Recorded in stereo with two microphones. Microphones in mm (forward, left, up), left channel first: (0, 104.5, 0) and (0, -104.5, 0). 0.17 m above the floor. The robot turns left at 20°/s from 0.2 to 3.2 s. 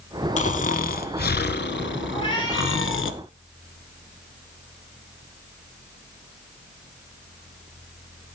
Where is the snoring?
145° left, 0.6 m; by 3.1 s 90° left, 0.6 m.